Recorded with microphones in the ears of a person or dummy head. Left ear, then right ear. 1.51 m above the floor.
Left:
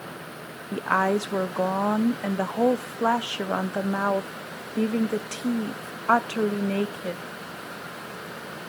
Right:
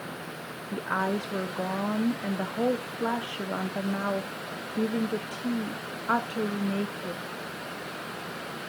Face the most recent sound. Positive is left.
turn(degrees=30)  # may be behind; listen again after turning